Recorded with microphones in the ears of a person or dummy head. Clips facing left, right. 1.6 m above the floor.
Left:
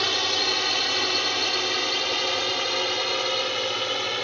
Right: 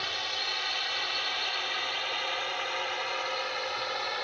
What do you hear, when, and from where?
0.0 s a drone: 65° left (ahead or behind); by 4.2 s 45° left (ahead or behind)